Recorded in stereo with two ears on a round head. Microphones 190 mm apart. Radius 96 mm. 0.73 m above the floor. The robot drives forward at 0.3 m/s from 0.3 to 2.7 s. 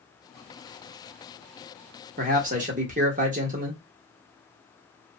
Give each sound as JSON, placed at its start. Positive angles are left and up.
{"t": 2.2, "sound": "a man speaking", "side_deg": -40, "distance_m": 1.0}